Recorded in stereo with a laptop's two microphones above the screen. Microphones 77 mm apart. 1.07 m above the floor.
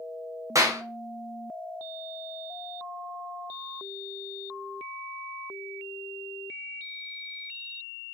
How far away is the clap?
About 0.9 m.